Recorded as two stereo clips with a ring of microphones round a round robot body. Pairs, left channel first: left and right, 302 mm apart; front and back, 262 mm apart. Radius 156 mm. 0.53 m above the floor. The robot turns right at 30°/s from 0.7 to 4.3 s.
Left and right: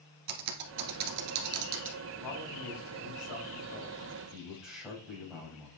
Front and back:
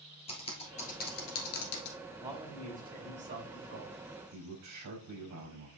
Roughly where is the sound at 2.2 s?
Left.